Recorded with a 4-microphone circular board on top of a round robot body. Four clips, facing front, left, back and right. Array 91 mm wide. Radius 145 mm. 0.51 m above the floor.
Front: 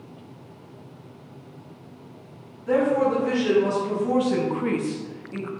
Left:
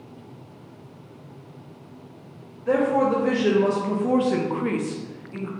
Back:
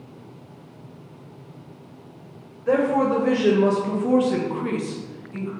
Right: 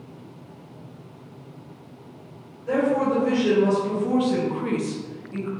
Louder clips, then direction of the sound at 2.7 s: Left 1 dB, back 1 dB; 150° left.